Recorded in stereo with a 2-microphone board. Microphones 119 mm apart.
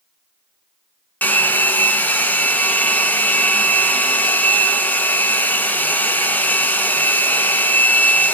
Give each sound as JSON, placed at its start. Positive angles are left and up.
{"t": 1.2, "sound": "a hair dryer", "side_deg": 15, "distance_m": 1.9}